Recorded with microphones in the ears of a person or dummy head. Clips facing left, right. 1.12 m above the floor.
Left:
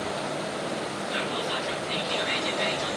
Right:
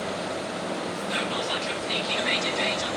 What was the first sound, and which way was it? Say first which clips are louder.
Whispering: even; 70° right (ahead or behind).